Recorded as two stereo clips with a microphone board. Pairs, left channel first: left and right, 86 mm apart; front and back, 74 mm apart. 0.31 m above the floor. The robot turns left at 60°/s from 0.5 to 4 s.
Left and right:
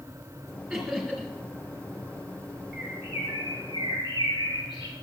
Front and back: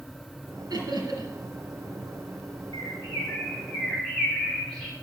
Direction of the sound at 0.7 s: 175° right.